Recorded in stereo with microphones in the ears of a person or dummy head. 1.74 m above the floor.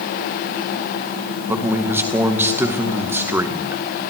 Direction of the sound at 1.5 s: 15° right (ahead or behind).